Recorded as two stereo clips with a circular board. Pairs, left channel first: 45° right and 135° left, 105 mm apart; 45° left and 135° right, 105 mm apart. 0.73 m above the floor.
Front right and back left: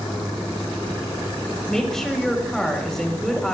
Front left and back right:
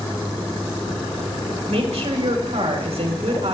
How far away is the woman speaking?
About 3.5 m.